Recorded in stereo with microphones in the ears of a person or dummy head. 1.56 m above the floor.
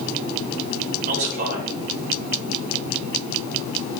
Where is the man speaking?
55° right (ahead or behind), 6 m.